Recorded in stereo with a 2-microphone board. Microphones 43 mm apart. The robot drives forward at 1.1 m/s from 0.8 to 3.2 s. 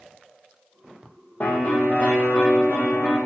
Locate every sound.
1.4 s a piano: 40° left (ahead or behind), 2 m; by 3.2 s 20° left (ahead or behind), 4 m